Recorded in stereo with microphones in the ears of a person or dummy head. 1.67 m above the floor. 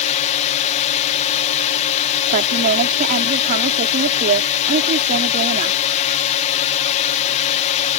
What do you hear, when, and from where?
0.0 s a drone: 35° left (ahead or behind)
2.3 s a woman speaking: 40° right (ahead or behind)